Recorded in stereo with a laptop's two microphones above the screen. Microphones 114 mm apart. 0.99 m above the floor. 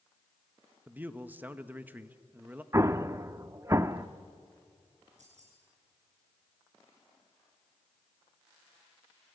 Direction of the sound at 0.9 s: 15° right (ahead or behind).